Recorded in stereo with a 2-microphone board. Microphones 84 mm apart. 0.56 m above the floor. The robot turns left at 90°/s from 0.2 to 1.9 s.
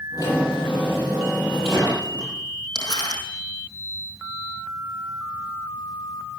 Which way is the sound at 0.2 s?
130° left.